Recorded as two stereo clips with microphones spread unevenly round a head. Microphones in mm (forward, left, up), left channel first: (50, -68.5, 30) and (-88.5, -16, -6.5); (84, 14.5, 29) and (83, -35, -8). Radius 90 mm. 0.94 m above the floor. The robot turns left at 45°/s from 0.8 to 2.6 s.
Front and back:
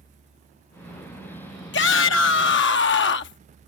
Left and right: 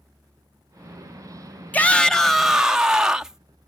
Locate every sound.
1.7 s a shout: 15° left; by 3.4 s 25° right